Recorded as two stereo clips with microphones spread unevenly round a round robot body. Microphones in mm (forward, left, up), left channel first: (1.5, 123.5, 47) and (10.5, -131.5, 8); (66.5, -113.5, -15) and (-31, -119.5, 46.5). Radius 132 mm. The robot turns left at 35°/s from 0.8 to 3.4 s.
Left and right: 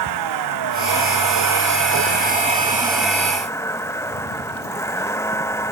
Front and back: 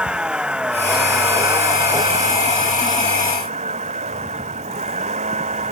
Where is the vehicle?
95° right; by 5.7 s 175° left.